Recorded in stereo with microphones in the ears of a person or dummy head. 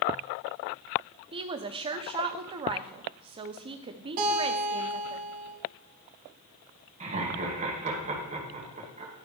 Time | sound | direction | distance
1.3 | a woman speaking | 25° right (ahead or behind) | 0.5 m
4.2 | a guitar | 45° right (ahead or behind) | 2 m
7.0 | laughter | 35° right (ahead or behind) | 2.5 m